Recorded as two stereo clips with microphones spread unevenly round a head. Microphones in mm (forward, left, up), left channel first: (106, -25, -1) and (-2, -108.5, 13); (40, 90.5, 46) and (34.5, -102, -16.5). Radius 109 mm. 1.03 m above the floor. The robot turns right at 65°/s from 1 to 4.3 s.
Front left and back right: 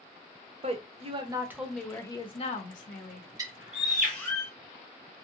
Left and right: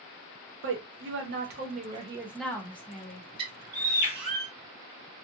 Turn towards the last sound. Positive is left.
turn(degrees=-20)